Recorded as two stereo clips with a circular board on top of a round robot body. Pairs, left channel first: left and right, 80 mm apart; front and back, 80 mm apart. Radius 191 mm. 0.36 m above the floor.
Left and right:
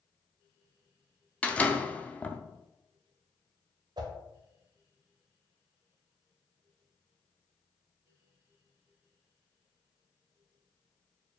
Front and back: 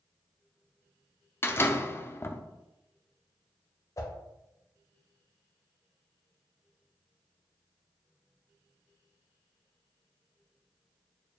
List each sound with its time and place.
1.4 s a door slam: 30° left, 0.6 m
4.0 s a whoosh: 55° right, 0.6 m